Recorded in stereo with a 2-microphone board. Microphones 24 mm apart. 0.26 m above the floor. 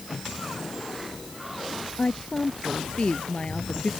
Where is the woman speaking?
50° left (ahead or behind).